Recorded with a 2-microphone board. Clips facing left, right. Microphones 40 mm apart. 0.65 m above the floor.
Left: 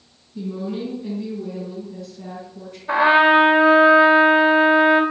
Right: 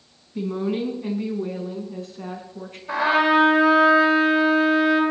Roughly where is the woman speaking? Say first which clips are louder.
Right 3 dB; right.